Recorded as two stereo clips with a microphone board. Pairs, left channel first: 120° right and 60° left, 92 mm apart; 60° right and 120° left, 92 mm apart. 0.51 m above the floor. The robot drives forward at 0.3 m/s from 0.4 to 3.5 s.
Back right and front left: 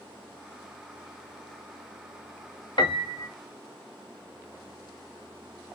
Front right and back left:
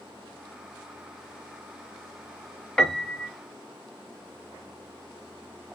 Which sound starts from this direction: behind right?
A piano, at 2.8 s.